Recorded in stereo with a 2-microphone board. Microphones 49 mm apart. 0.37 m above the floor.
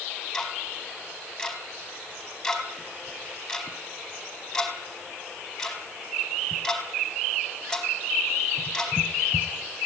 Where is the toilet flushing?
I don't hear a toilet flushing.